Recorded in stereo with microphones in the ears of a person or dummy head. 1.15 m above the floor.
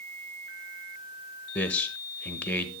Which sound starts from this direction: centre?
A man speaking, at 1.6 s.